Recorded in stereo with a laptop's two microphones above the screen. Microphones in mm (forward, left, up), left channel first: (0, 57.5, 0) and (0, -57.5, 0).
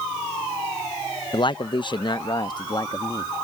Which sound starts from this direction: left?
A man speaking, at 1.3 s.